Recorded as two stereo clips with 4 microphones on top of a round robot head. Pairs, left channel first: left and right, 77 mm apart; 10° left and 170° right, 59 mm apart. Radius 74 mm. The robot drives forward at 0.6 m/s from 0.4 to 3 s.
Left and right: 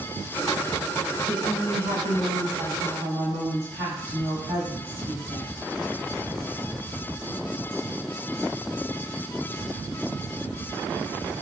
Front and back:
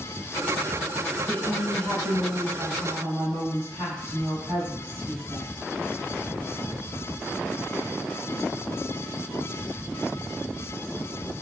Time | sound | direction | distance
1.3 | a woman speaking | 110° right | 2.0 m